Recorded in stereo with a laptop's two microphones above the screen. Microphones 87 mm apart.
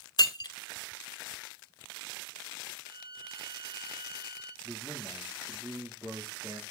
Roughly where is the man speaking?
Right.